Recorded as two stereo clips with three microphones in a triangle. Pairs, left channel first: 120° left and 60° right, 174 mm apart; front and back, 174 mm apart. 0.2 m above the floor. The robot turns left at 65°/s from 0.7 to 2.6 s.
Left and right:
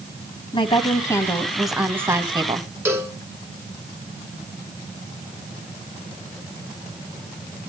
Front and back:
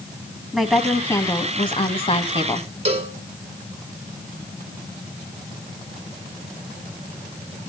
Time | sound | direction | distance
0.5 | a woman speaking | 90° left | 1.3 m
2.9 | a cowbell | 135° right | 1.5 m